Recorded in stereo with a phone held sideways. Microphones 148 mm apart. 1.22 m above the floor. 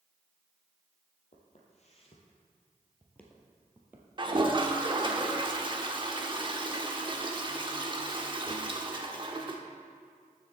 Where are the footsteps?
55° left (ahead or behind), 2 m; by 4.1 s 15° right (ahead or behind), 1.8 m.